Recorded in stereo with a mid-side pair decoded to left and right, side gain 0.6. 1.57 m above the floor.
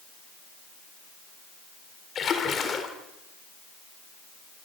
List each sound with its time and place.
2.1 s a splash: 40° left, 4 m